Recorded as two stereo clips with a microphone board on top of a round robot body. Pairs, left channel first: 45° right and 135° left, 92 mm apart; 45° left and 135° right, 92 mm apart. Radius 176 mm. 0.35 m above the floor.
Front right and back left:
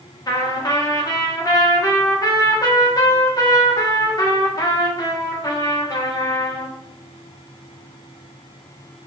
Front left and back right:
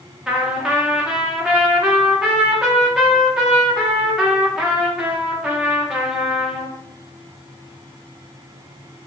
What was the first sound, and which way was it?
A trumpet, 60° right.